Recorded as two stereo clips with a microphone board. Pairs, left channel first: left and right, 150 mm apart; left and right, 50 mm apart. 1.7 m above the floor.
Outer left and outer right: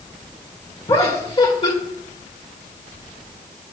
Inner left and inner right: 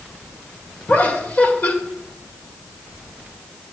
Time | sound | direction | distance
0.9 | laughter | 40° left (ahead or behind) | 2 m